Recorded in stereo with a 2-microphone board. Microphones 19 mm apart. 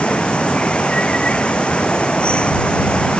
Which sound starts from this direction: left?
Running water, at 0.0 s.